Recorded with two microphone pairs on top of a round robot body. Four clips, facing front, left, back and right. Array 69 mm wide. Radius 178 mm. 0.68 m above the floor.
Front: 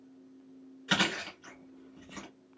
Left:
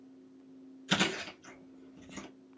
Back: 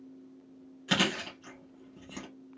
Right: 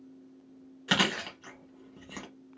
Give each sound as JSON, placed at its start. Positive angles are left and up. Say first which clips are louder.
{"t": 0.9, "sound": "chewing", "louder": "right 4 dB, back 1 dB", "azimuth_deg": -85, "distance_m": 0.8}